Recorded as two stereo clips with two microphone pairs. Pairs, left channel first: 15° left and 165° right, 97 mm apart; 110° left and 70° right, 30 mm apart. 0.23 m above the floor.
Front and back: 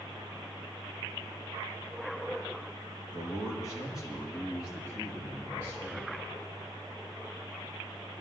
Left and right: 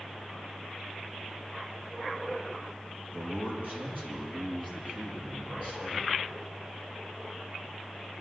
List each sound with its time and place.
3.1 s a man speaking: 35° right, 5.5 m; by 6.2 s 55° right, 8 m